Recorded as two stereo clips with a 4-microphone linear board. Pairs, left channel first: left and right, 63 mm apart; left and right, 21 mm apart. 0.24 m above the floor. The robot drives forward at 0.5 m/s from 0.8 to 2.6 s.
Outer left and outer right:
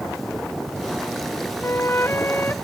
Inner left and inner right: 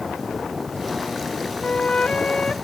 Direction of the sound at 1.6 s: 35° left (ahead or behind).